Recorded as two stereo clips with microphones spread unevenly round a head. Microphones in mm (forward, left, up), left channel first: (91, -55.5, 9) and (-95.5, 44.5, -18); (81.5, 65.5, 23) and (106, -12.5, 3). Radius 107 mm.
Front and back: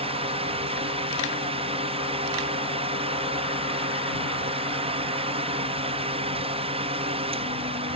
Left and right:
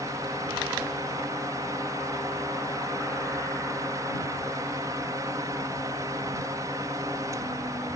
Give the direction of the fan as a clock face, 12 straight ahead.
5 o'clock.